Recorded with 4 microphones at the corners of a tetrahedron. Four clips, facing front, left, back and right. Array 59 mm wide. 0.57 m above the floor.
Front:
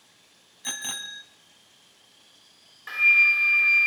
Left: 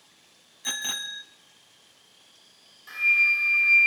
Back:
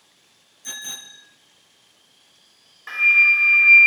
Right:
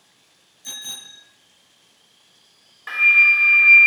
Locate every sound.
0.6 s a bicycle bell: 45° left, 3 m
2.9 s a flute: 105° right, 0.9 m